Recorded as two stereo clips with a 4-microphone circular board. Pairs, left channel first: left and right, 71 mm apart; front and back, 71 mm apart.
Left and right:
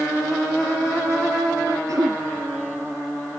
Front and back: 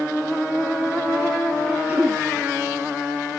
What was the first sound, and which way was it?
Throat clearing, 115° right.